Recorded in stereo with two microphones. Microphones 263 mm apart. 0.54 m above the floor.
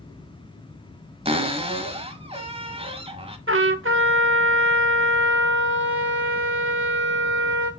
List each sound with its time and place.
1.2 s a cupboard door: 20° right (ahead or behind), 1.0 m
3.5 s a trumpet: 50° right (ahead or behind), 1.0 m